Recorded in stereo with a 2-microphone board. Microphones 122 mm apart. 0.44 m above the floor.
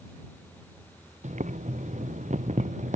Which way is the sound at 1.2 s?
85° right.